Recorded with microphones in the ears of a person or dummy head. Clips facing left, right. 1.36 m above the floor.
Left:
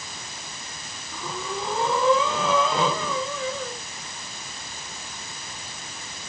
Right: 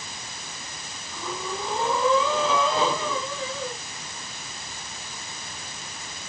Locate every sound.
1.1 s breathing: 50° left (ahead or behind), 3 m